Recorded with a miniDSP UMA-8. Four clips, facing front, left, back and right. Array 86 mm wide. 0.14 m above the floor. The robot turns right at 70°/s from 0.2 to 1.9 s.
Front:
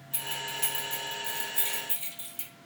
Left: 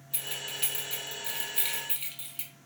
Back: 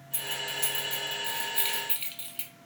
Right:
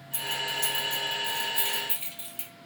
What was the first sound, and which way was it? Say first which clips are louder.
Keys jangling: right 9 dB, back 1 dB; 50° left.